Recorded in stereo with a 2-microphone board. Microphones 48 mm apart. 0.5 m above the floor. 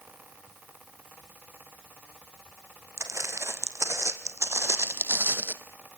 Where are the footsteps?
75° right (ahead or behind), 2.5 m; by 5.6 s 40° right (ahead or behind), 1.2 m.